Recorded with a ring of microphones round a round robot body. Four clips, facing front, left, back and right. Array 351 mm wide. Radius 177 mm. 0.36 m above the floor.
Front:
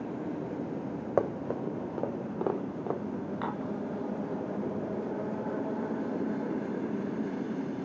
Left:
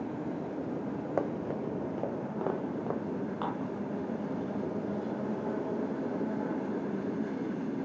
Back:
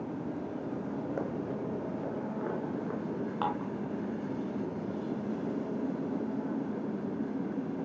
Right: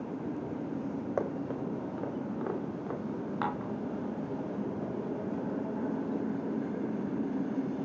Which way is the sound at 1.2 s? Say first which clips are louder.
Left 2 dB, front 4 dB; 10° left.